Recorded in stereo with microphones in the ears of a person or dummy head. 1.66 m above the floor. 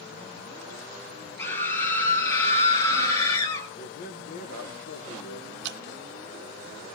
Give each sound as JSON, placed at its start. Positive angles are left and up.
{"t": 1.4, "sound": "a scream", "side_deg": 20, "distance_m": 3.0}
{"t": 3.8, "sound": "a man speaking", "side_deg": 45, "distance_m": 1.2}
{"t": 5.6, "sound": "dripping", "side_deg": -65, "distance_m": 0.6}